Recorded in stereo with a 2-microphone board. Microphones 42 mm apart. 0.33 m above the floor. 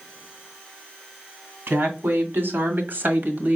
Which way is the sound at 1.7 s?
65° right (ahead or behind).